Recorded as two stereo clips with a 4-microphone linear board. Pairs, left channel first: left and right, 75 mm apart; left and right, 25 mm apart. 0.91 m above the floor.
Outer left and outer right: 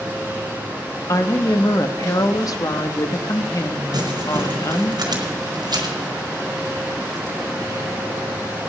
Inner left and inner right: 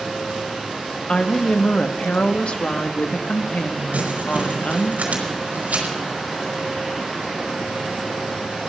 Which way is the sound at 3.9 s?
65° right (ahead or behind).